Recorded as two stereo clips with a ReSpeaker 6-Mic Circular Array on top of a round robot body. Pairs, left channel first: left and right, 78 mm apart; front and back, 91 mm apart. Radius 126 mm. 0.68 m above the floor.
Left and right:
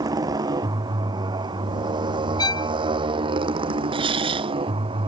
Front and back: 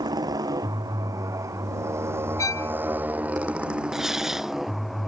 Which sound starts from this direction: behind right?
A motorcycle, at 0.0 s.